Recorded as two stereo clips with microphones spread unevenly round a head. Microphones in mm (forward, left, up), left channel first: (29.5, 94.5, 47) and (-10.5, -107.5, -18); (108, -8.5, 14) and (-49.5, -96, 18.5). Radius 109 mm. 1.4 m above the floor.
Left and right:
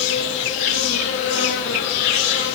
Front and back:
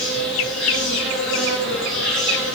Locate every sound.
0.0 s an insect: 115° left, 8 m